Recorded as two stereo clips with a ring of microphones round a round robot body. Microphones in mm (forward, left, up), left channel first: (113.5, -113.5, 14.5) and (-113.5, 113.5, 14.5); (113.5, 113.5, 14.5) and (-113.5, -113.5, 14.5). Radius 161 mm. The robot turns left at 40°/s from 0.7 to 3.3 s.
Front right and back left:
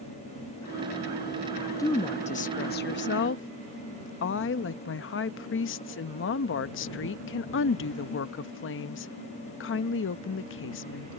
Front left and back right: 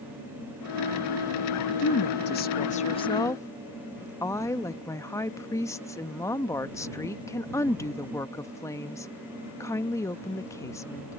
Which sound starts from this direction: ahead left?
A woman speaking, at 1.8 s.